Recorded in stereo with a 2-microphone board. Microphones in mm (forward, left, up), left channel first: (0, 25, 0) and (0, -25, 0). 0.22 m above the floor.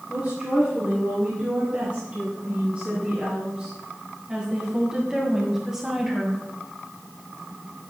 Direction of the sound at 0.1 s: 35° right (ahead or behind).